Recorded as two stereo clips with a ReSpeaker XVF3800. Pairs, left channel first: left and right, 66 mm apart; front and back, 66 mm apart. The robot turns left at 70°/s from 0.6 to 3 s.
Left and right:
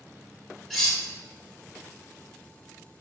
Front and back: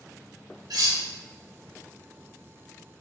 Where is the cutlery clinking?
Straight behind, 0.9 m; by 1.0 s 155° left, 0.9 m.